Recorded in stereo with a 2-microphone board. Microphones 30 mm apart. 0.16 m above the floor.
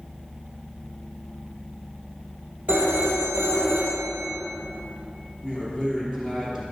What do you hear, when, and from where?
2.7 s a phone ringing: 70° right (ahead or behind), 2.5 m
5.4 s a man speaking: 20° right (ahead or behind), 3 m